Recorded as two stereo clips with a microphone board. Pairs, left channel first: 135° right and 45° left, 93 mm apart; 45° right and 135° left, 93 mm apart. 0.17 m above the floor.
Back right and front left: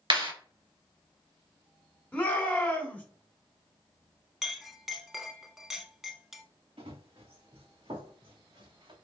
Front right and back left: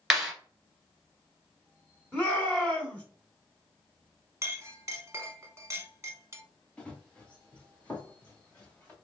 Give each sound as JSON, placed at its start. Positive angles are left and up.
{"t": 0.1, "sound": "a clap", "azimuth_deg": 50, "distance_m": 2.5}
{"t": 2.1, "sound": "a shout", "azimuth_deg": -100, "distance_m": 1.6}
{"t": 4.4, "sound": "a clink", "azimuth_deg": 130, "distance_m": 0.7}
{"t": 6.8, "sound": "running footsteps", "azimuth_deg": 30, "distance_m": 1.3}